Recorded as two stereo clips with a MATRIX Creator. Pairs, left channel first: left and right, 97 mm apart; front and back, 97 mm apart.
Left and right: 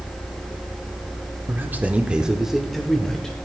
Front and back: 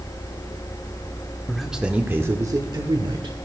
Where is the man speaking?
80° right, 0.8 m; by 3.4 s 175° left, 1.2 m.